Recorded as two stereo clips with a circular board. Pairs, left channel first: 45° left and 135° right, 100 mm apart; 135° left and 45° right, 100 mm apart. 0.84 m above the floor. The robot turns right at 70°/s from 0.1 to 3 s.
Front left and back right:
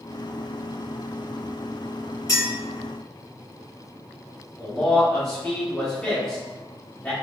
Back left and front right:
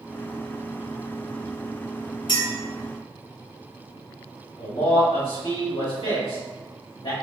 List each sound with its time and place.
2.3 s a clink: 100° left, 1.4 m; by 2.5 s 110° left, 1.4 m
4.6 s a man speaking: 125° left, 1.8 m